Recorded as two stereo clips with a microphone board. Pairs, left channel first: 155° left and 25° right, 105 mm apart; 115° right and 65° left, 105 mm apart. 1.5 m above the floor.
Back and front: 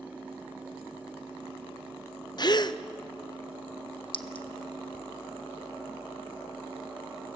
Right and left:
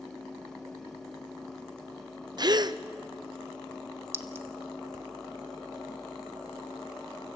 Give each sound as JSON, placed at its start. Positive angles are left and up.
{"t": 2.4, "sound": "a gasp", "azimuth_deg": 115, "distance_m": 0.7}
{"t": 4.1, "sound": "a clink", "azimuth_deg": 130, "distance_m": 0.9}